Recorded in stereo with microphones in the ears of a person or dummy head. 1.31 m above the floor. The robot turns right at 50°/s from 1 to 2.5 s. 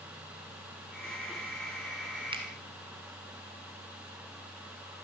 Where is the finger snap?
25° right (ahead or behind), 2 m; by 2.4 s 35° right (ahead or behind), 2 m.